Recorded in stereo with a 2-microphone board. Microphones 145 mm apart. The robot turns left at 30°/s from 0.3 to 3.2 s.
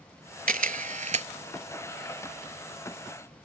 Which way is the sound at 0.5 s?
75° right (ahead or behind).